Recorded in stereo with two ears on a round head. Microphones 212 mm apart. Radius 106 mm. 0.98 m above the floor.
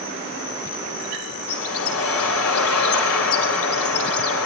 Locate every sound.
1.5 s a bird: 65° left (ahead or behind), 4 m